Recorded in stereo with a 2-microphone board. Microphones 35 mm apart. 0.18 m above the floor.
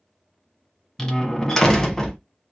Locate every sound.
1.0 s a door slam: 10° left (ahead or behind), 1.1 m